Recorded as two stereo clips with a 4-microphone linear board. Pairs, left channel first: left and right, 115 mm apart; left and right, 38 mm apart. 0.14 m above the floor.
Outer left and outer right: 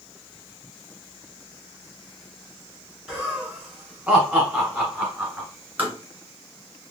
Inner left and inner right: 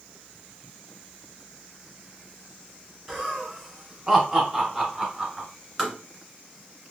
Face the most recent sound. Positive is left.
turn(degrees=-15)  # may be behind; listen again after turning